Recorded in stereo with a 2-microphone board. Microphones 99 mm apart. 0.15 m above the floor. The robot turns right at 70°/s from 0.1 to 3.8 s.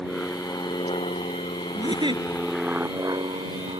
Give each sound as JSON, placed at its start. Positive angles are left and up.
{"t": 0.0, "sound": "an aircraft", "side_deg": 5}
{"t": 1.8, "sound": "a giggle", "azimuth_deg": -125}